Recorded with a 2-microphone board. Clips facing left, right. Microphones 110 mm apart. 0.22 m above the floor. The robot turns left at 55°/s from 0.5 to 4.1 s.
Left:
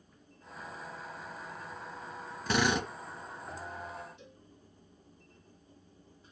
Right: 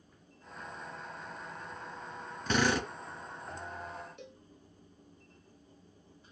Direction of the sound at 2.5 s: Centre (ahead or behind).